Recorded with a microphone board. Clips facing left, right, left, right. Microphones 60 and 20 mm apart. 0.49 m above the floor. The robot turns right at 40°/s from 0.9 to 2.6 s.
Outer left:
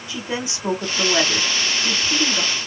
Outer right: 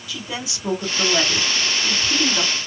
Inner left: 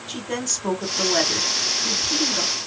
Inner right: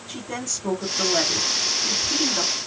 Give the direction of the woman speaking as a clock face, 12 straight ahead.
7 o'clock.